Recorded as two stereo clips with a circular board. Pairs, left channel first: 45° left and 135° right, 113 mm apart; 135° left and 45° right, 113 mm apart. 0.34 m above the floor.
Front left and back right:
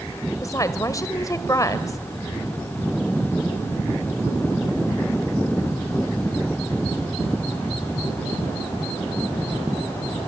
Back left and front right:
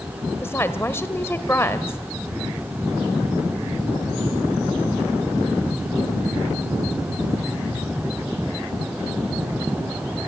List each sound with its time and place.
0.4 s a woman speaking: 80° left, 1.6 m